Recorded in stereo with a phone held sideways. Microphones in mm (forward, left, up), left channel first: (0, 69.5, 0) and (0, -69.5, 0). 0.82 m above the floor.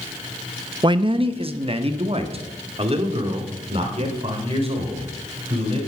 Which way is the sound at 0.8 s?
35° right (ahead or behind).